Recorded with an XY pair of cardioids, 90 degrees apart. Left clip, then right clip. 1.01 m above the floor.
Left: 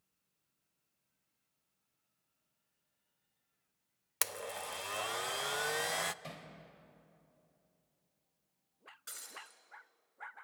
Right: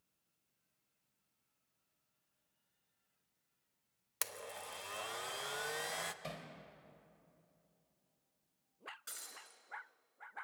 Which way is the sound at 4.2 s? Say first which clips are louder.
Left 6 dB; 45° left.